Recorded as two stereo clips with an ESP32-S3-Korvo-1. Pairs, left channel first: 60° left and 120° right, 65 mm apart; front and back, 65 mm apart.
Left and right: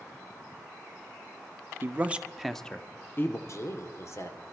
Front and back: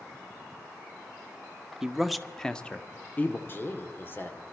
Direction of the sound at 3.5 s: 45° left.